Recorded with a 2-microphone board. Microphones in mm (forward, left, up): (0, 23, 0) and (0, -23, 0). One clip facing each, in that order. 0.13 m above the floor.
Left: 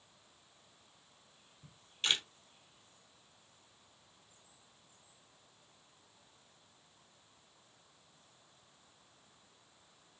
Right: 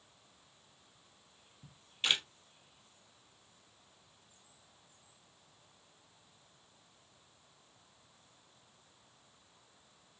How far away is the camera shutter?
About 1.4 m.